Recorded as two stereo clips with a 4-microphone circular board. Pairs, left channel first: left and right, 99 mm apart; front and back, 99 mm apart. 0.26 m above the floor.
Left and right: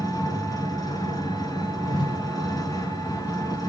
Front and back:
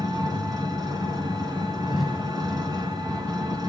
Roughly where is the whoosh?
Left.